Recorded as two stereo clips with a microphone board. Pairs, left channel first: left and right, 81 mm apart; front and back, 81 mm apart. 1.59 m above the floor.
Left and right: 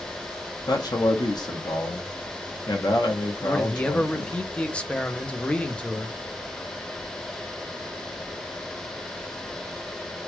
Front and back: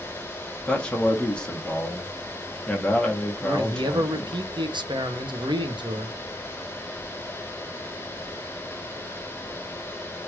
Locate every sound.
0.7 s a man speaking: 75° left, 1.0 m
3.4 s a man speaking: 170° left, 0.6 m